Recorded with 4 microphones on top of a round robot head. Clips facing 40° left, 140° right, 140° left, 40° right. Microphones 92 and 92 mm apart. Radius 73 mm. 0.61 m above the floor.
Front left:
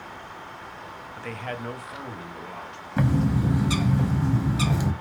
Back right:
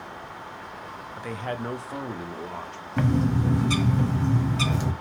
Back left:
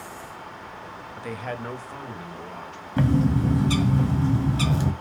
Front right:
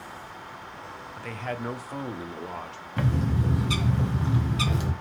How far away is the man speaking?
About 0.5 m.